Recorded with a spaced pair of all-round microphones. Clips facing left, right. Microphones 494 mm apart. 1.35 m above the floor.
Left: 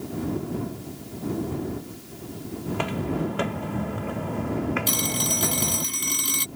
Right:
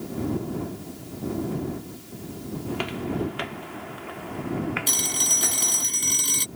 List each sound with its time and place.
2.7 s footsteps: 65° left (ahead or behind); by 5.9 s 60° left (ahead or behind)
4.9 s a phone ringing: 25° left (ahead or behind)